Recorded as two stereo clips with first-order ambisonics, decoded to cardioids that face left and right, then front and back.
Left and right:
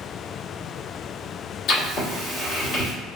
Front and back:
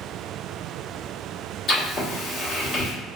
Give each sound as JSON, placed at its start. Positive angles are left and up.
{"t": 1.7, "sound": "writing", "azimuth_deg": 60, "distance_m": 1.5}